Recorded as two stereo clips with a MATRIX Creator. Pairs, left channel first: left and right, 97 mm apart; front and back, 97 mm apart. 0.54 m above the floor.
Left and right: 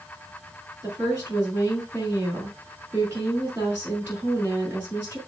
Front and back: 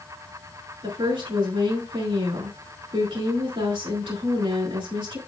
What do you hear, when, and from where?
0.8 s a woman speaking: 155° right, 4.5 m